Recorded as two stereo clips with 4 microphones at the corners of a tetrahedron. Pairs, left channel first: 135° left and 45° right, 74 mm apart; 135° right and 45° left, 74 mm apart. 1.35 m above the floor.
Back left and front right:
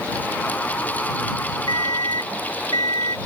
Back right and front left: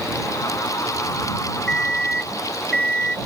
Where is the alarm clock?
145° left.